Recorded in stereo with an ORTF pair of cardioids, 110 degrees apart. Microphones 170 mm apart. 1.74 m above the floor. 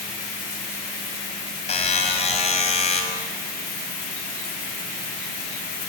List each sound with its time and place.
1.7 s a buzzer: 40° left, 4 m